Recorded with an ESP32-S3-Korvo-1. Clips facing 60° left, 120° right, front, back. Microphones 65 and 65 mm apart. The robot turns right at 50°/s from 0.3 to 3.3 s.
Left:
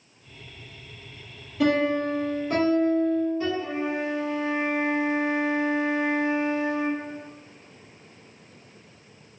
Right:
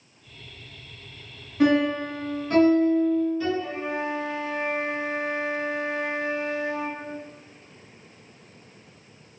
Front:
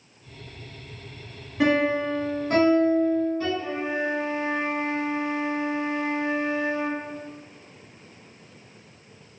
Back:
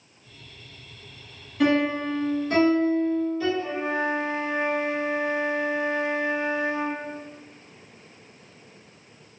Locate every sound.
1.6 s a piano: 60° right, 2.0 m; by 3.5 s 25° left, 2.0 m
3.6 s a flute: 60° left, 1.3 m